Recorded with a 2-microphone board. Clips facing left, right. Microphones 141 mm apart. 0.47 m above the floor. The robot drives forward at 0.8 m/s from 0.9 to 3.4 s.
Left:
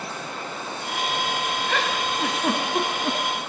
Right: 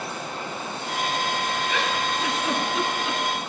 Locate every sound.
1.7 s a giggle: 65° left (ahead or behind), 3 m; by 3.2 s 50° left (ahead or behind), 4 m